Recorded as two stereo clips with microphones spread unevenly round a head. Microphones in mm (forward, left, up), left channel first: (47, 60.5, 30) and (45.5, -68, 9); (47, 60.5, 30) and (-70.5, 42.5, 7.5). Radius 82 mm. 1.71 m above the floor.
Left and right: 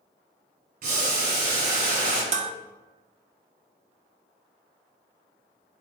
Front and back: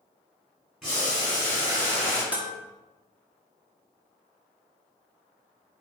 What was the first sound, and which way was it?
Boiling, 80° right.